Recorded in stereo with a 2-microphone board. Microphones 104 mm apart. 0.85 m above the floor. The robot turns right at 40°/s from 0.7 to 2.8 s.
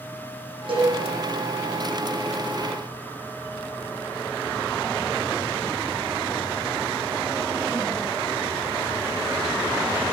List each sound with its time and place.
0.7 s a cowbell: 60° right (ahead or behind), 5 m; by 0.9 s 50° right (ahead or behind), 5 m